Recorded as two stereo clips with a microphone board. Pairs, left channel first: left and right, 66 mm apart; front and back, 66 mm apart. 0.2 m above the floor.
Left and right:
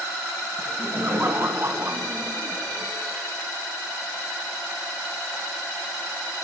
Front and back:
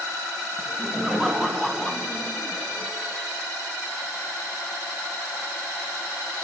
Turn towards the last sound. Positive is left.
turn(degrees=-55)